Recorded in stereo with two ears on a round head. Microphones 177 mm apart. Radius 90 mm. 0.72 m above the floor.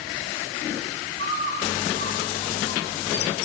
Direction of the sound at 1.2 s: 80° left.